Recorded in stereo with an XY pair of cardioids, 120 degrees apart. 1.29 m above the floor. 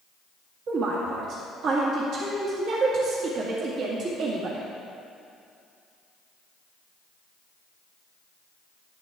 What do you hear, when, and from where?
0.7 s a woman speaking: 65° right, 2.0 m